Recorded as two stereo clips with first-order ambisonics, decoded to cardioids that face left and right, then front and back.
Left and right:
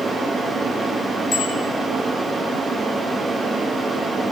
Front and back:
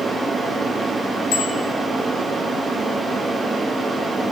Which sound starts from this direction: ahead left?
A bicycle bell, at 1.3 s.